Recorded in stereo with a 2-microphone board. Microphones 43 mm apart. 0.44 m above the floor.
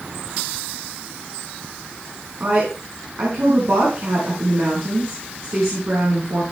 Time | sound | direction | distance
2.4 | a woman speaking | 70° right (ahead or behind) | 5 m